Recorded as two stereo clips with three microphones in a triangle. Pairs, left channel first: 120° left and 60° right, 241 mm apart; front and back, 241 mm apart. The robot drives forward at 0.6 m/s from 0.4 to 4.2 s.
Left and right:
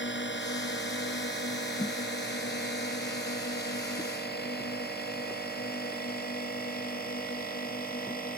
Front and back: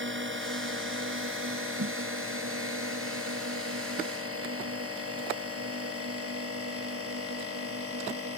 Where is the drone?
150° left; by 8.4 s 170° left.